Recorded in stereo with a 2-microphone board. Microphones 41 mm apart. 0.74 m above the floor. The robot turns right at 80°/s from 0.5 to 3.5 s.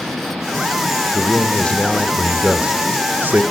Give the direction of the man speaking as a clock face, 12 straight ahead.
9 o'clock.